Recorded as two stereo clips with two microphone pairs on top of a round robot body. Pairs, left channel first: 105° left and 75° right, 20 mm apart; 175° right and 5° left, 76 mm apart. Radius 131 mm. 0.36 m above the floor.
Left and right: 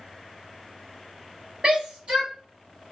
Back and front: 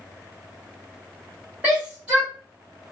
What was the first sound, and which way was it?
A shout, 60° right.